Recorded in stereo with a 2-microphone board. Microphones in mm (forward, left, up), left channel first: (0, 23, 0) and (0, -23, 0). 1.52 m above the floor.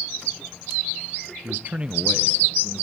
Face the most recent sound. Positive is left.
turn(degrees=30)  # may be behind; listen again after turning